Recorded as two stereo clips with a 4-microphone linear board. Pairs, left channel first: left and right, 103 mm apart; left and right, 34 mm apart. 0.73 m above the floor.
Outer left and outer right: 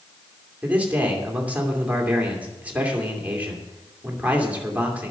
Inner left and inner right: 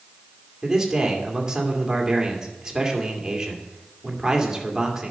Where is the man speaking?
15° right (ahead or behind), 2.5 m.